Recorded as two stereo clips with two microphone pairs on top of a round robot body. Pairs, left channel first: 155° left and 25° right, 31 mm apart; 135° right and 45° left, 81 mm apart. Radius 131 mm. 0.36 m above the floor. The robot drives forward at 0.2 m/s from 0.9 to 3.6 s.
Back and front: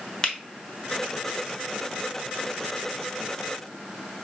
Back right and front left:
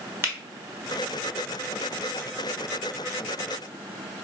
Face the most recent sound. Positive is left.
turn(degrees=125)